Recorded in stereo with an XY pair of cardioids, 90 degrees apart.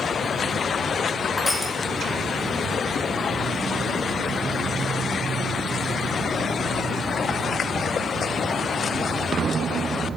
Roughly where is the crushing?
Ahead.